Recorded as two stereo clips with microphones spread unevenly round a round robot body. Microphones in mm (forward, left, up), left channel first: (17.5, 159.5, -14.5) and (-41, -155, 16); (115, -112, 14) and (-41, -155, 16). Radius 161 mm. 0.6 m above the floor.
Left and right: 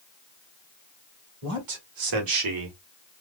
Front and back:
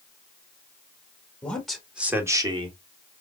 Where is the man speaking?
65° right, 2 m; by 2.8 s 115° right, 1.3 m.